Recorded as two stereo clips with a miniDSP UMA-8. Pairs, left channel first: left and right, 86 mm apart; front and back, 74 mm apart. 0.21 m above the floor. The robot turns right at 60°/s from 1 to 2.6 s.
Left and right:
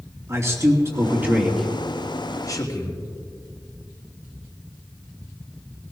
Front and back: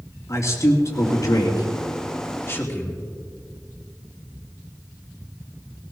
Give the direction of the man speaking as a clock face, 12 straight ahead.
1 o'clock.